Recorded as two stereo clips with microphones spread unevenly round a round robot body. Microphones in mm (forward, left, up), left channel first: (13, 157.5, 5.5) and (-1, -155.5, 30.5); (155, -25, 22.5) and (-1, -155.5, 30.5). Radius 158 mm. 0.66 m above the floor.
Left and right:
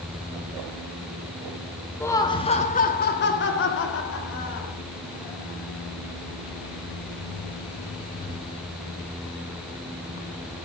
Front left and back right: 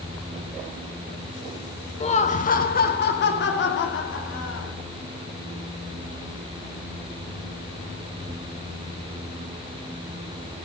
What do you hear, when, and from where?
2.0 s laughter: 15° left, 1.1 m; by 4.7 s 50° left, 2.5 m